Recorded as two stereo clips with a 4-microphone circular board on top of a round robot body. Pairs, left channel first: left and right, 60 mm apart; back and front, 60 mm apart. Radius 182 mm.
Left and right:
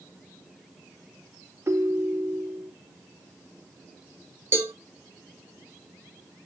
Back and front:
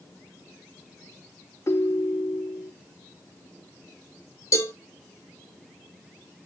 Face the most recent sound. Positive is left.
turn(degrees=-145)